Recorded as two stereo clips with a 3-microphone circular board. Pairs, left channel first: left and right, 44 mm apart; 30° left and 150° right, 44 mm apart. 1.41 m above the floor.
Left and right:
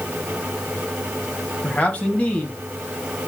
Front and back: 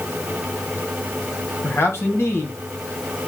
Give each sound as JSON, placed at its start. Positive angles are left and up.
{"t": 1.6, "sound": "a man speaking", "azimuth_deg": 35, "distance_m": 2.5}